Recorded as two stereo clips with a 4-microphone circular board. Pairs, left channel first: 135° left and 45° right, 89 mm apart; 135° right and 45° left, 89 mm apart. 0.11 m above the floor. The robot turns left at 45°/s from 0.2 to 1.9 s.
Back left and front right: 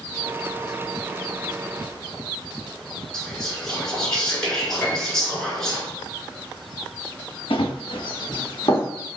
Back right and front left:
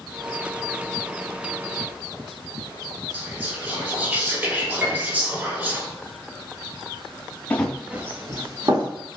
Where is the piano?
100° left, 1.5 m.